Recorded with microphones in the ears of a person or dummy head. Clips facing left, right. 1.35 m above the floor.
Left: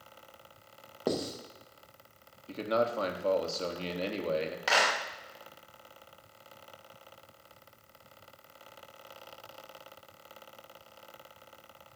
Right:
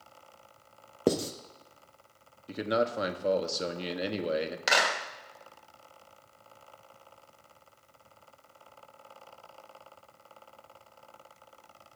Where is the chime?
No chime in this recording.